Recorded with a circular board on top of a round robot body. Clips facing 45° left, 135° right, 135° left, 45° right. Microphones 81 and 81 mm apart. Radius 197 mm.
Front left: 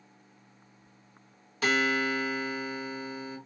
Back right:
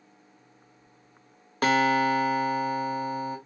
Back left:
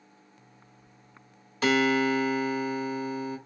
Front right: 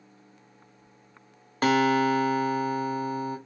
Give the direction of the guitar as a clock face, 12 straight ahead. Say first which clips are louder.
Back right 6 dB, front right 2 dB; 3 o'clock.